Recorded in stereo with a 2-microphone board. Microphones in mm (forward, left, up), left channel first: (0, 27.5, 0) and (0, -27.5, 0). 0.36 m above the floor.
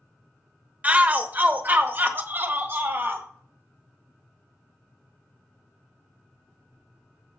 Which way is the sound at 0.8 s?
30° right (ahead or behind).